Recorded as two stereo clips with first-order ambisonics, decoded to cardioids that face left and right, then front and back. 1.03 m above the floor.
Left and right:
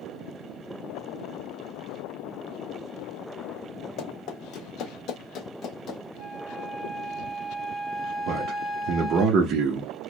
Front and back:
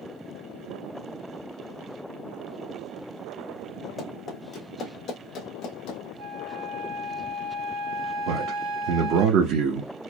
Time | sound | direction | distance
4.0 | running footsteps | 70° left | 2 m
6.2 | a flute | 170° left | 1.2 m
8.3 | a man speaking | 145° right | 1.0 m